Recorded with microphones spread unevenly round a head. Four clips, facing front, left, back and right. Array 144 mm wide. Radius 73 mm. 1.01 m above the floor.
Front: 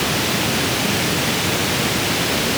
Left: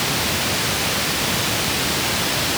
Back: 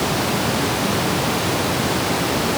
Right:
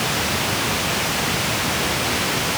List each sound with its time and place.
Only background noise.